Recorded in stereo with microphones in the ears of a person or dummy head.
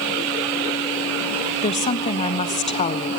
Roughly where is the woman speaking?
Left.